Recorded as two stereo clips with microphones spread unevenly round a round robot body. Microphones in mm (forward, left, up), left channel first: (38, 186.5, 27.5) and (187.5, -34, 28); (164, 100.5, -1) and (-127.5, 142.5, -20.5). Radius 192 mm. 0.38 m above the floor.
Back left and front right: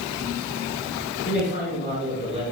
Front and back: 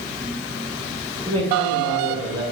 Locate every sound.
1.2 s a man speaking: 75° left, 3.5 m